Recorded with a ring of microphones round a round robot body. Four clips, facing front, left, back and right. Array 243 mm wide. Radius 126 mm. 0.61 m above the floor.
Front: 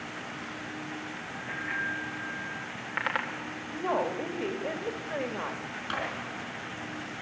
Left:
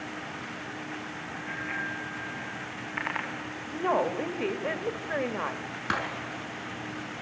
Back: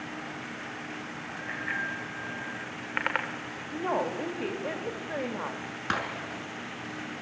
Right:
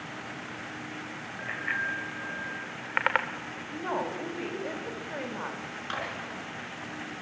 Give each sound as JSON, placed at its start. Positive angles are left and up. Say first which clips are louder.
{"t": 1.4, "sound": "a bicycle bell", "louder": "right 3 dB, even", "azimuth_deg": -115, "distance_m": 2.0}
{"t": 3.7, "sound": "a woman speaking", "louder": "left 6 dB, even", "azimuth_deg": 95, "distance_m": 1.3}
{"t": 5.9, "sound": "breaking glass", "louder": "left 5 dB, back 4 dB", "azimuth_deg": 140, "distance_m": 4.0}